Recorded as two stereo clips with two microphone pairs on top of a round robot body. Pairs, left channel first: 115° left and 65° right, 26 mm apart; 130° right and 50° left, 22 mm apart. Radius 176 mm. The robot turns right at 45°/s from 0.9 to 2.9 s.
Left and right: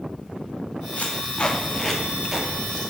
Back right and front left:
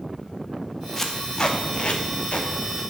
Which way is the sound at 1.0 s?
150° left.